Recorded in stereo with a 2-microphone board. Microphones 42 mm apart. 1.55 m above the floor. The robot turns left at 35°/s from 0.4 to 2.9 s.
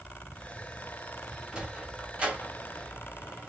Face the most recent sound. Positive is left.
turn(degrees=-35)  # may be behind; listen again after turning